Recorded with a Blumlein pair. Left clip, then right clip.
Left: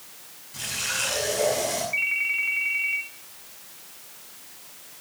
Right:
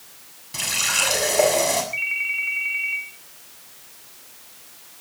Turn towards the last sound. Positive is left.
turn(degrees=0)